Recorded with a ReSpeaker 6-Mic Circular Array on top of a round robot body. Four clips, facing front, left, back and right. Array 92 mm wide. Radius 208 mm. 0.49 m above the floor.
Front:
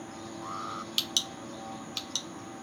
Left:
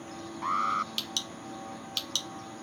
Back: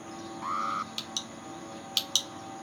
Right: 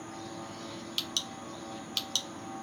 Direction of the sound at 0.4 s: 115° left.